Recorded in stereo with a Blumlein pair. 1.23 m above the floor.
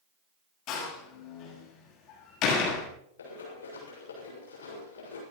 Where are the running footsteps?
65° left, 7 m.